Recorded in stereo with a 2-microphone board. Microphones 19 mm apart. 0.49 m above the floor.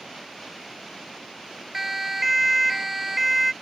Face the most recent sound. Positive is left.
turn(degrees=-10)  # may be behind; listen again after turning